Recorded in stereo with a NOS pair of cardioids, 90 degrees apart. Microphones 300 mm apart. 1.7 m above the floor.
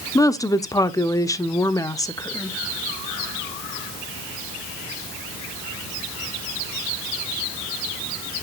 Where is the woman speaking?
10° left, 0.8 m.